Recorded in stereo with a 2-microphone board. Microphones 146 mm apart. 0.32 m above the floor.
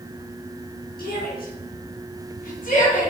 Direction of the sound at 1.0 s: 75° left (ahead or behind).